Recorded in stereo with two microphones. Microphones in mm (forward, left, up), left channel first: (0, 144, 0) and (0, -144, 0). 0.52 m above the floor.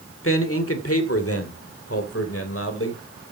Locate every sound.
0.2 s a man speaking: 50° left (ahead or behind), 2 m